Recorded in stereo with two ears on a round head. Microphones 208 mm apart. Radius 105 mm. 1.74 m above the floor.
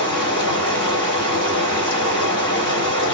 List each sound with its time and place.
0.0 s running water: 20° left (ahead or behind), 1.8 m